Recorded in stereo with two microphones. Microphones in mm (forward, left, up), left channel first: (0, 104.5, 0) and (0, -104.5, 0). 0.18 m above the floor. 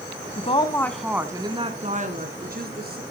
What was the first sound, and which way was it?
A woman speaking, 35° left (ahead or behind).